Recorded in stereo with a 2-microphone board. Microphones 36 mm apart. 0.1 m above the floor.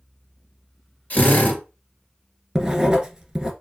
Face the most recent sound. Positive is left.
turn(degrees=-20)  # may be behind; listen again after turning